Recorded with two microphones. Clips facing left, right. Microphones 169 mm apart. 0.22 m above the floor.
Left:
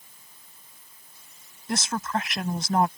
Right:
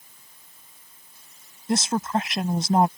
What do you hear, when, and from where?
1.7 s a woman speaking: 25° right (ahead or behind)